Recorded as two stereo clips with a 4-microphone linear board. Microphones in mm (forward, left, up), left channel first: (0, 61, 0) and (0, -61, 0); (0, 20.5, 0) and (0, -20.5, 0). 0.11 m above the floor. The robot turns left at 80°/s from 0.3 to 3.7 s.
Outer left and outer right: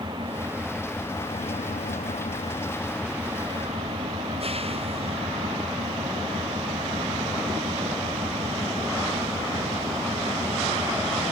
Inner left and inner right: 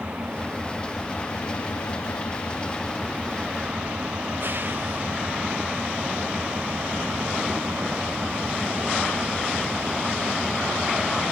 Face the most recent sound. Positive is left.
turn(degrees=-55)